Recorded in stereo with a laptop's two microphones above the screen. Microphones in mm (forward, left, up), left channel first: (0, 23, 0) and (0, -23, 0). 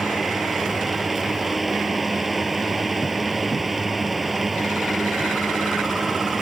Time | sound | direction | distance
0.0 | a fan | centre (ahead or behind) | ?